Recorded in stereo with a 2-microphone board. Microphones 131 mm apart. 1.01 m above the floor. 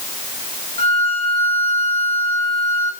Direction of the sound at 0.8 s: 50° left (ahead or behind).